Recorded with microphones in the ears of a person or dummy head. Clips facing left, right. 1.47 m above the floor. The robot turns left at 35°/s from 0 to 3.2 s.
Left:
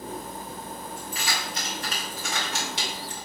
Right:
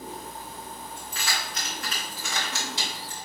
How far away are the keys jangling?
About 0.9 m.